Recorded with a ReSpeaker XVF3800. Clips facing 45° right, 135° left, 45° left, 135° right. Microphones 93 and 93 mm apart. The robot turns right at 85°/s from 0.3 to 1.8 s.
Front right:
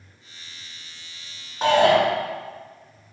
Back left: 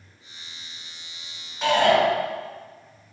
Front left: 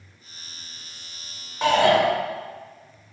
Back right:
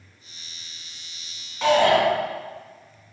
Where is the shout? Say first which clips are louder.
Front right 2 dB, even; 25° right, 2 m; by 2.0 s 10° right, 2 m.